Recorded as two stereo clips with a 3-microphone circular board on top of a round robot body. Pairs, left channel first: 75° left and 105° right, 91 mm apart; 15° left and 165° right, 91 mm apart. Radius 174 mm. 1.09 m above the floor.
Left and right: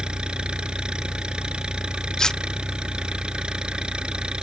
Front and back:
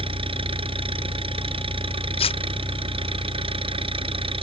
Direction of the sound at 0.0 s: 175° left.